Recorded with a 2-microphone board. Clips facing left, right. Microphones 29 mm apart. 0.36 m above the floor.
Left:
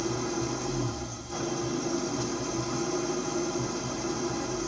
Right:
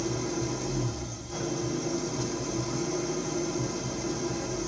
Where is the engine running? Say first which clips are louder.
Even; 5° left (ahead or behind), 1.6 m.